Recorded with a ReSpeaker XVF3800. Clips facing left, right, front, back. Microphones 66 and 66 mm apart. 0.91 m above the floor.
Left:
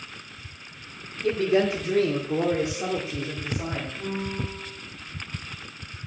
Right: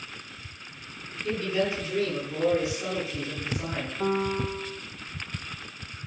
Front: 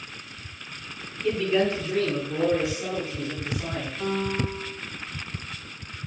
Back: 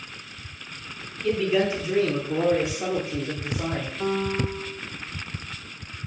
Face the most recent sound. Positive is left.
turn(degrees=-110)